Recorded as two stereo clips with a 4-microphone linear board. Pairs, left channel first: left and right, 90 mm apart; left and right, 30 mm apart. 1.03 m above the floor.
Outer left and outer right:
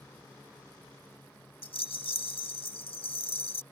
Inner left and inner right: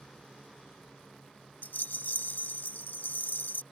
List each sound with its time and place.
1.6 s a rattle: 75° left (ahead or behind)